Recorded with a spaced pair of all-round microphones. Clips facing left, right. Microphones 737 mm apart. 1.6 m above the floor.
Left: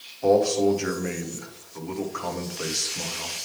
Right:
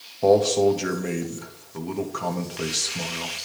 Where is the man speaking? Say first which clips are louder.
Right 2 dB; 60° right (ahead or behind), 1.0 m.